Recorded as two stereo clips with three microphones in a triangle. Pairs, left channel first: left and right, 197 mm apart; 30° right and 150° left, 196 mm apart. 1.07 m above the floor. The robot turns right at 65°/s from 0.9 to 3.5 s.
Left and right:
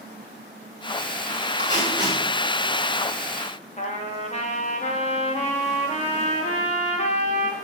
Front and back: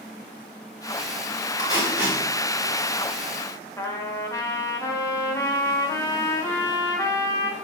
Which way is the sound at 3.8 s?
40° left.